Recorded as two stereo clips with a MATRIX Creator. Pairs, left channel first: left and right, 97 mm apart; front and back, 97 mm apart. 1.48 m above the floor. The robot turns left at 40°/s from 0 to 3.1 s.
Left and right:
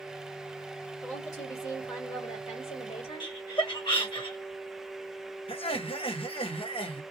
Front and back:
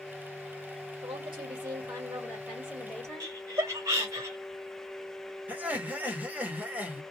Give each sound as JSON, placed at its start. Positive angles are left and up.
{"t": 1.0, "sound": "a woman speaking", "azimuth_deg": 155, "distance_m": 1.3}
{"t": 3.2, "sound": "laughter", "azimuth_deg": 125, "distance_m": 1.1}
{"t": 5.5, "sound": "laughter", "azimuth_deg": 105, "distance_m": 1.0}